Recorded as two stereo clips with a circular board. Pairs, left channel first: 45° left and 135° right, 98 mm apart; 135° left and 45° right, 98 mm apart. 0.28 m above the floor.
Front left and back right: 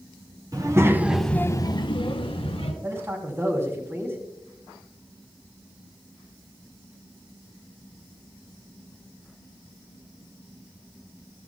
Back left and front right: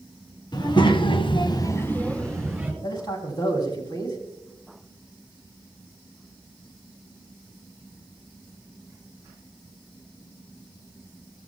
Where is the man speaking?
165° left, 2.5 m.